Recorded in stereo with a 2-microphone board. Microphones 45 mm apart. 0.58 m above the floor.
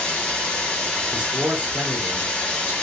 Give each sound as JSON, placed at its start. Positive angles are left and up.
{"t": 0.0, "sound": "running water", "side_deg": 25, "distance_m": 1.3}
{"t": 1.1, "sound": "a man speaking", "side_deg": -35, "distance_m": 1.2}